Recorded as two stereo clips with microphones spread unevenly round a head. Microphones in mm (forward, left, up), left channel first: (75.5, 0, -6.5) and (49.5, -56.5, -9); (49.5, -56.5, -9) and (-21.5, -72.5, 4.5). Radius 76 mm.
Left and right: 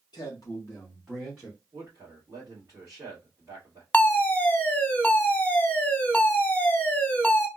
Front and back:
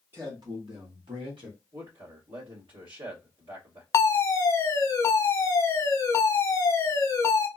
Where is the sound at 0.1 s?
115° left, 0.8 m; by 1.6 s 165° left, 1.3 m.